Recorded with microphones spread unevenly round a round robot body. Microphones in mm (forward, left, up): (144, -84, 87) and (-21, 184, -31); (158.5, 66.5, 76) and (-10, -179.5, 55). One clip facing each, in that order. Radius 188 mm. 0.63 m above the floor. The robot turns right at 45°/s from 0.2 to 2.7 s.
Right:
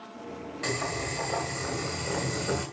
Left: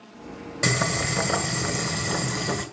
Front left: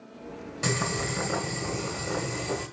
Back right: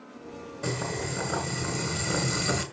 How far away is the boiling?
About 2.5 m.